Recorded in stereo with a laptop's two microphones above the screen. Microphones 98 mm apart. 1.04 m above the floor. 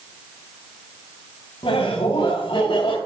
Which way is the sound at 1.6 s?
75° left (ahead or behind).